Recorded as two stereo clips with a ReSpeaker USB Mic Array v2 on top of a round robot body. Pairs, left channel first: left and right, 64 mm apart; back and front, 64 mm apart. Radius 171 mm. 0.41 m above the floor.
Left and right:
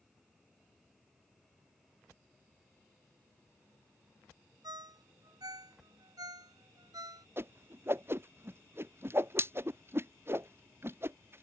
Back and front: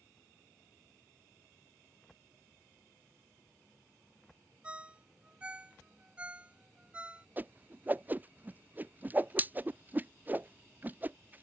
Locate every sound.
4.6 s a ringtone: 70° right
7.4 s a whoosh: 50° right